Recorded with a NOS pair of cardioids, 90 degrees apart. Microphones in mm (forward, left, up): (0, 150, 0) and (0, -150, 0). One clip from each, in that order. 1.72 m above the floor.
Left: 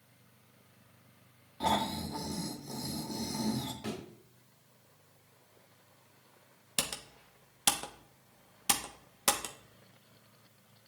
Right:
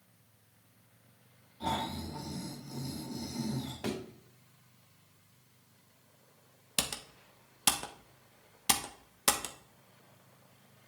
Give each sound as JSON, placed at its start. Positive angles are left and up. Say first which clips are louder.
{"t": 1.6, "sound": "snoring", "louder": "left 4 dB", "azimuth_deg": 60, "distance_m": 2.0}
{"t": 3.8, "sound": "a thud", "louder": "right 3 dB", "azimuth_deg": -55, "distance_m": 3.5}
{"t": 6.8, "sound": "typing on a keyboard", "louder": "right 1 dB", "azimuth_deg": -5, "distance_m": 1.2}